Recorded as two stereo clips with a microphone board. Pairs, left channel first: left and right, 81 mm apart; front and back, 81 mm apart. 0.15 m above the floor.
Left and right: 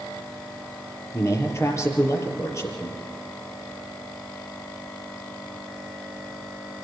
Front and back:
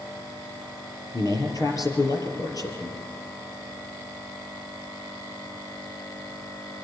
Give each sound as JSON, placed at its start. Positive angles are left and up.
{"t": 1.1, "sound": "a man speaking", "azimuth_deg": 40, "distance_m": 4.0}